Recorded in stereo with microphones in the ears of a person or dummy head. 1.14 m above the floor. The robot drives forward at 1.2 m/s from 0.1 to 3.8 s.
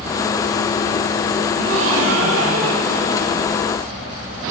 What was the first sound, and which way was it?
A gasp, 80° right.